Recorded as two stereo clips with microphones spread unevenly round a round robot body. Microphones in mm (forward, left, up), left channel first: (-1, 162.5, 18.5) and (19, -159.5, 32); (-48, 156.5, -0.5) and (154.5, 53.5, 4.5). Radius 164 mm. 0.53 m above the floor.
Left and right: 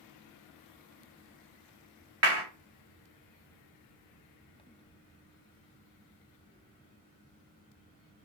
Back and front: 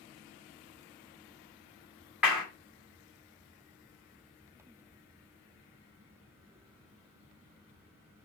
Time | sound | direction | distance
2.2 | a clap | 115° right | 1.4 m